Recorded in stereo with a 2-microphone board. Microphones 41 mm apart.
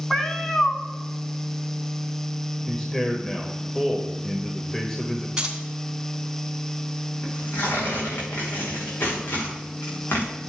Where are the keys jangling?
15° right (ahead or behind), 2.5 m.